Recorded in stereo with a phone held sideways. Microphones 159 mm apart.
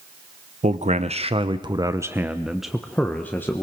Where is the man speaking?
50° right (ahead or behind), 1.0 m; by 3.6 s 15° left (ahead or behind), 1.2 m.